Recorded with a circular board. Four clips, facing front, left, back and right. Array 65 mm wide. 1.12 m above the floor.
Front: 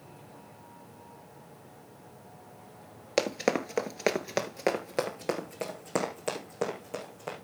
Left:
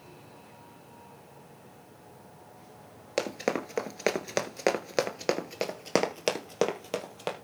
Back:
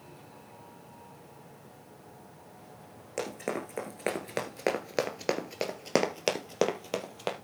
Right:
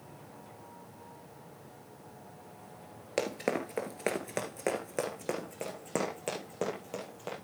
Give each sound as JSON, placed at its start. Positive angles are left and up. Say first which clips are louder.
{"t": 3.2, "sound": "running footsteps", "louder": "left 2 dB, front 7 dB", "azimuth_deg": 15, "distance_m": 1.3}